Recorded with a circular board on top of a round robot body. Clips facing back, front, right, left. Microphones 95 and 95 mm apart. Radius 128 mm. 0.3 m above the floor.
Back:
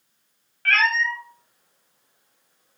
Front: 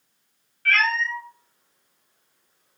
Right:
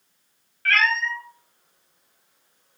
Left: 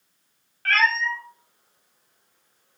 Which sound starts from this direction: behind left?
A cat meowing, at 0.7 s.